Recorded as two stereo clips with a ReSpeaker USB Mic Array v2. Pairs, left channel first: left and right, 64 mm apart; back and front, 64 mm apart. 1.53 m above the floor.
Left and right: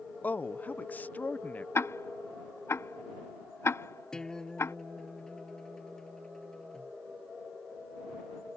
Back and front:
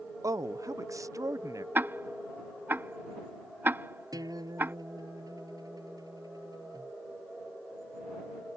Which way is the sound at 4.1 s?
10° left.